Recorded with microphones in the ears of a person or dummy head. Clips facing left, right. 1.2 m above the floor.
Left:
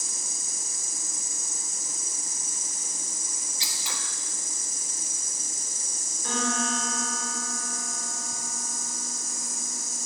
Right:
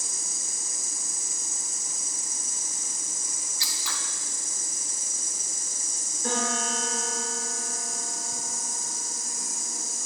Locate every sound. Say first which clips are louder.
0.0 s an insect: even; 55° left (ahead or behind), 3.5 m
3.6 s scissors: even; 20° left (ahead or behind), 1.1 m
6.2 s a piano: even; 45° right (ahead or behind), 5 m